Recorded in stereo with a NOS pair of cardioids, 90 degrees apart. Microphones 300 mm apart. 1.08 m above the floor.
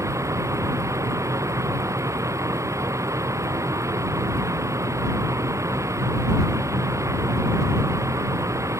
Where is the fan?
10° right.